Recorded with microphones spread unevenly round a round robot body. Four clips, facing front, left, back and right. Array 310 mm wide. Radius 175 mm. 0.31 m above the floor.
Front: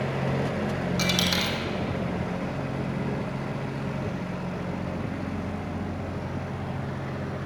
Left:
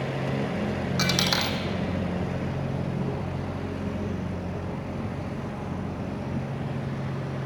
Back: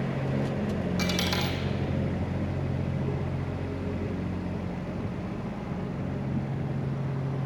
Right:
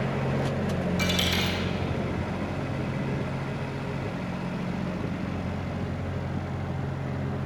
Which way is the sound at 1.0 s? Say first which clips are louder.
Left 1 dB, front 2 dB; 65° left.